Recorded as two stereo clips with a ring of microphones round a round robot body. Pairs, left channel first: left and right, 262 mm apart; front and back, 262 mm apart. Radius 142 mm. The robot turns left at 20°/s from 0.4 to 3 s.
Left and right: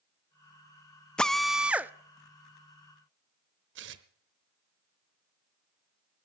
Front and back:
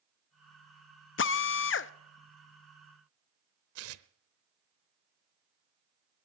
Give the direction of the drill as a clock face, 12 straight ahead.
12 o'clock.